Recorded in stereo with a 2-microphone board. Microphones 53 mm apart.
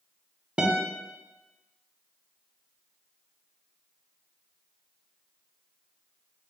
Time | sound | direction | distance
0.6 | a guitar | 20° right (ahead or behind) | 0.6 m